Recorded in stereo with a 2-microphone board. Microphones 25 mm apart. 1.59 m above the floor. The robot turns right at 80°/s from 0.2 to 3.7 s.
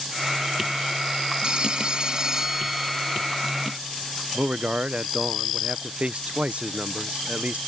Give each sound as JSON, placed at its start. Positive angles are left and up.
{"t": 1.4, "sound": "a phone ringing", "azimuth_deg": -105}
{"t": 4.3, "sound": "a man speaking", "side_deg": -55}